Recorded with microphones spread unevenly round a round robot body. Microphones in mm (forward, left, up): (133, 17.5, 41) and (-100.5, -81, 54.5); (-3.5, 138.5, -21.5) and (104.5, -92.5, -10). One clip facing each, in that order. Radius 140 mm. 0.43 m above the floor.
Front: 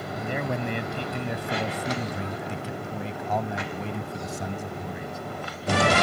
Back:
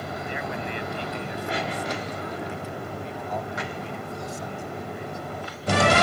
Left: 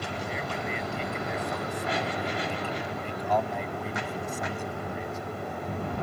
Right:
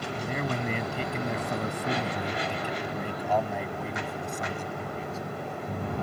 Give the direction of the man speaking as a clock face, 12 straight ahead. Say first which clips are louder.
Front 6 dB, right 5 dB; 1 o'clock.